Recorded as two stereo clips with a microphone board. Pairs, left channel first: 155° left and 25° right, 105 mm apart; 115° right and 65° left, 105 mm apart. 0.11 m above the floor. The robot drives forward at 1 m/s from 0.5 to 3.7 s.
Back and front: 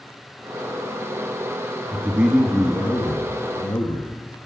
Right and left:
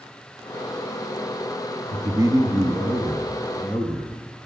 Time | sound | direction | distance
1.9 | a man speaking | 35° left | 1.5 m